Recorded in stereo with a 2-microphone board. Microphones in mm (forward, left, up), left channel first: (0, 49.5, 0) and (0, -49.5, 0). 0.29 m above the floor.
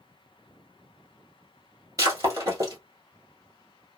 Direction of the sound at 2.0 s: 35° right (ahead or behind).